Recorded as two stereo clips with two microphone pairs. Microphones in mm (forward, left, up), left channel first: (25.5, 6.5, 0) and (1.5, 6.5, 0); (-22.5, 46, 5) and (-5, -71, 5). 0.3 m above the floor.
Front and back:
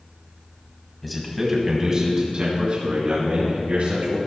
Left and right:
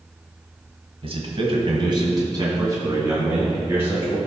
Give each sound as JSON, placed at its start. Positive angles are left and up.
{"t": 1.0, "sound": "a man speaking", "azimuth_deg": -85, "distance_m": 2.0}